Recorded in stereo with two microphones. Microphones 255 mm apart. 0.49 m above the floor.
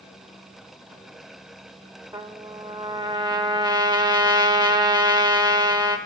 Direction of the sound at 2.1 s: 15° right (ahead or behind).